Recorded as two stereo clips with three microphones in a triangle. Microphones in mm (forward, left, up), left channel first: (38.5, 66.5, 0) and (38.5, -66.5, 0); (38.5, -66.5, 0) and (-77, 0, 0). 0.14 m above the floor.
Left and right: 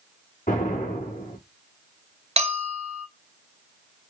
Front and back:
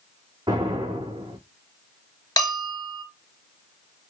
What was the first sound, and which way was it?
An explosion, 90° left.